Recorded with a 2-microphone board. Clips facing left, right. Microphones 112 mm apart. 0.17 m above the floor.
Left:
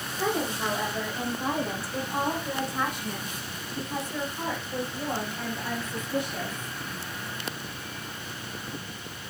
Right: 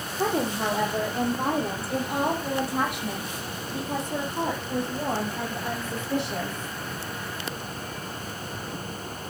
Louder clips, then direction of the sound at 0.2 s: Right 3 dB; 45° right (ahead or behind).